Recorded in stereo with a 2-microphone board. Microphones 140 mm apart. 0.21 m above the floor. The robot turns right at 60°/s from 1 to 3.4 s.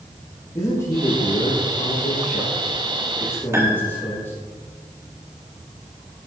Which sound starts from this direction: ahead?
A man speaking, at 0.6 s.